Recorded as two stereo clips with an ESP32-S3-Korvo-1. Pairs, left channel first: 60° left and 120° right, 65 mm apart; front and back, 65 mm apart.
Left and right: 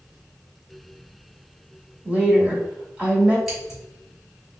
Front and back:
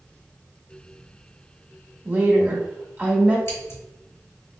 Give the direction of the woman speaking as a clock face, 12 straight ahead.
6 o'clock.